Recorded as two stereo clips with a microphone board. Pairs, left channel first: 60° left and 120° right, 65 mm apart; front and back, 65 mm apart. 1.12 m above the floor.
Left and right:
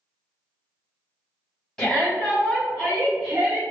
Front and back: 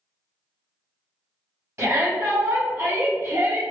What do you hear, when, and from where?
1.8 s a shout: 140° left, 1.7 m; by 3.6 s 150° right, 0.7 m